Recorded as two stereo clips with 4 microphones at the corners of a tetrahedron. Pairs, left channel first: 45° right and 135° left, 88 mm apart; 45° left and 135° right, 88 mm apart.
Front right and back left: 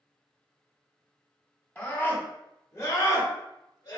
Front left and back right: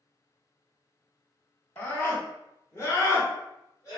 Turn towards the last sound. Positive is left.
turn(degrees=-5)